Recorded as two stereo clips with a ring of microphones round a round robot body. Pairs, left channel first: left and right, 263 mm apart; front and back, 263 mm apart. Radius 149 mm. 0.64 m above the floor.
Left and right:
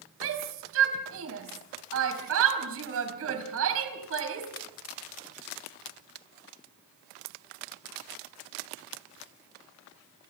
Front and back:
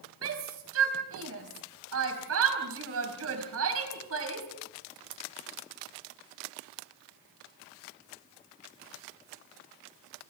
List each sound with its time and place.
0.2 s a shout: 135° right, 4.5 m